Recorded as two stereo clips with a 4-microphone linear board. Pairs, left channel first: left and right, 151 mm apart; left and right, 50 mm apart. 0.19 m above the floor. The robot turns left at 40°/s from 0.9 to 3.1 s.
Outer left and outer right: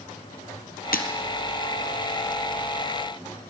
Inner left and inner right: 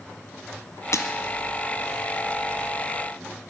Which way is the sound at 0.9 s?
80° left.